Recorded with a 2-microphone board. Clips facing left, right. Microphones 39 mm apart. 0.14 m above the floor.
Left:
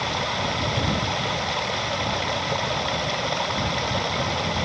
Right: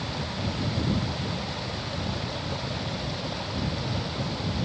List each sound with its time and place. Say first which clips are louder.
0.0 s running water: left 7 dB; 85° left